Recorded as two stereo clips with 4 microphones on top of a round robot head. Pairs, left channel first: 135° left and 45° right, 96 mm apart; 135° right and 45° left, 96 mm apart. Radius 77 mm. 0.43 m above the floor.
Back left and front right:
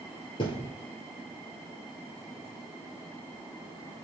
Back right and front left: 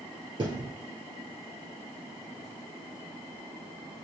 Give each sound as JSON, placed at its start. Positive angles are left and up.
{"t": 0.4, "sound": "a thud", "azimuth_deg": 95, "distance_m": 2.5}